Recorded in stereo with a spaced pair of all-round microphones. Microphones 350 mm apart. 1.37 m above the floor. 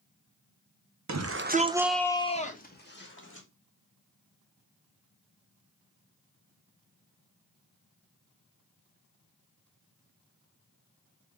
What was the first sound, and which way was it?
A shout, 55° right (ahead or behind).